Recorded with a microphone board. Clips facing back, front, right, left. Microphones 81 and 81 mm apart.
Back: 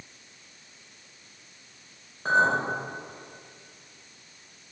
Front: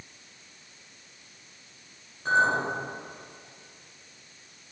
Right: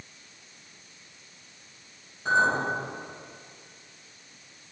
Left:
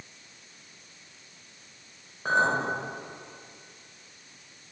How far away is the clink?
About 4 m.